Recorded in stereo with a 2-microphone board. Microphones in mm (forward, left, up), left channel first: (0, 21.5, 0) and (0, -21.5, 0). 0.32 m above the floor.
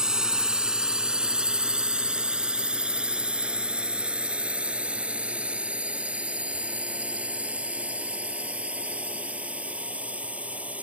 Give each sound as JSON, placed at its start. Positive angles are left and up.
{"t": 0.0, "sound": "a drone", "side_deg": -15}